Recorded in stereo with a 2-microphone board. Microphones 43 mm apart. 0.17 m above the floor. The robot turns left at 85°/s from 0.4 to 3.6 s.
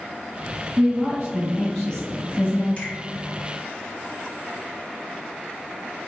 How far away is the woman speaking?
About 1.9 m.